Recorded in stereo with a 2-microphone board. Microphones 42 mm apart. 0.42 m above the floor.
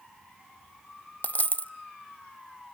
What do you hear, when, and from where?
1.2 s a dropped coin: 45° left (ahead or behind), 0.8 m